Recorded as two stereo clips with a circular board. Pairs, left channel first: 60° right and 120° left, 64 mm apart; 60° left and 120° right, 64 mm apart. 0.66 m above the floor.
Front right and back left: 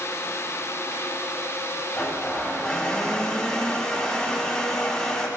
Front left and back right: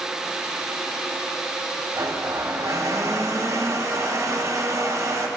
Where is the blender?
135° right, 1.3 m.